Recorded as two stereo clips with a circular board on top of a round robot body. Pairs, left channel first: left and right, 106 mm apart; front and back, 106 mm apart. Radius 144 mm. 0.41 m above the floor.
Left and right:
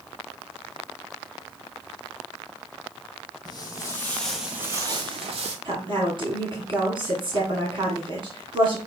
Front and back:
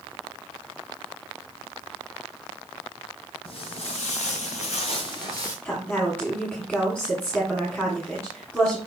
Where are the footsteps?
40° left, 1.2 m; by 5.5 s 60° right, 1.2 m.